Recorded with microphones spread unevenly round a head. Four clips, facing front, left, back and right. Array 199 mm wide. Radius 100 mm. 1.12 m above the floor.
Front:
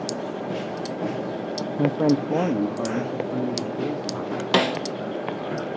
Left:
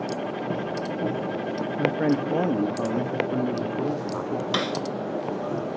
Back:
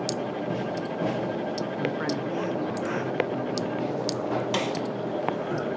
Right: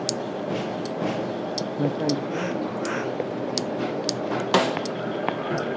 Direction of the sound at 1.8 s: 10° right.